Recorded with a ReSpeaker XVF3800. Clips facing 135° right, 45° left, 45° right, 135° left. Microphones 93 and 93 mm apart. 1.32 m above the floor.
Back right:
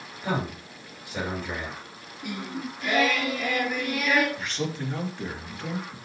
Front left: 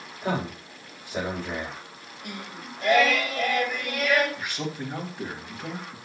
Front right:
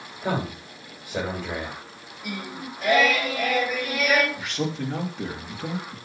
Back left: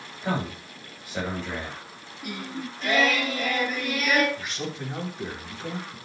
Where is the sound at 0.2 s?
15° right, 7.5 m.